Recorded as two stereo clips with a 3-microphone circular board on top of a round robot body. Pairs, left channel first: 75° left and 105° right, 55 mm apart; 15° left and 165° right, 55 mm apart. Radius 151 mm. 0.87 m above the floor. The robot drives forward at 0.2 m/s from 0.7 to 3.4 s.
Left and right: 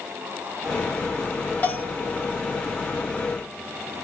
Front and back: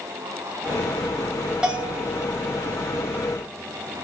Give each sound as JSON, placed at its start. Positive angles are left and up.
{"t": 1.6, "sound": "a bell", "azimuth_deg": 125, "distance_m": 1.1}